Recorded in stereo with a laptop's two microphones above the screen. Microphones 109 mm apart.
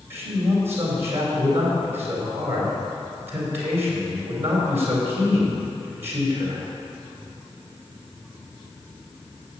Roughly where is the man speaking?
Right.